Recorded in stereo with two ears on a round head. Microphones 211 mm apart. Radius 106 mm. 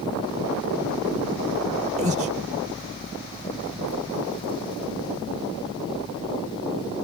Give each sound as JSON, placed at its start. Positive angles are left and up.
{"t": 2.0, "sound": "breathing", "side_deg": -30}